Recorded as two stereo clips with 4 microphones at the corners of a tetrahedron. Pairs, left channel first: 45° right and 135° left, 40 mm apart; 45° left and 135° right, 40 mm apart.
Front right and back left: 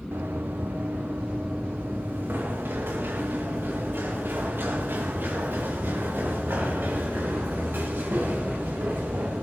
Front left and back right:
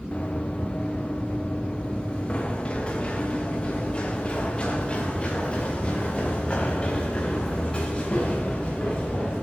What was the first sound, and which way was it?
Running footsteps, 105° left.